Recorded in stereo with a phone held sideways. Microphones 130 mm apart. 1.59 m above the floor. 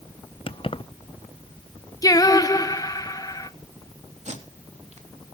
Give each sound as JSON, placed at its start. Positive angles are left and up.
{"t": 0.5, "sound": "keys jangling", "side_deg": 45, "distance_m": 0.7}
{"t": 2.0, "sound": "singing", "side_deg": 25, "distance_m": 0.9}
{"t": 4.2, "sound": "tape being pulled", "side_deg": -60, "distance_m": 3.0}